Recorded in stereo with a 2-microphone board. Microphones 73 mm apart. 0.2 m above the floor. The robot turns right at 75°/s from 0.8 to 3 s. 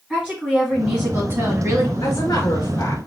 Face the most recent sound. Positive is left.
turn(degrees=155)